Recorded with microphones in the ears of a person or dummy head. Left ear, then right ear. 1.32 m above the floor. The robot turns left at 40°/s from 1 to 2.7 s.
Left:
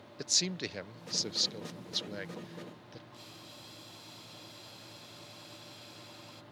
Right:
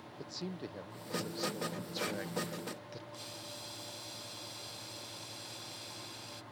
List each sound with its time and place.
0.2 s a man speaking: 65° left; by 3.0 s 5° right
3.1 s boiling: 10° right (ahead or behind)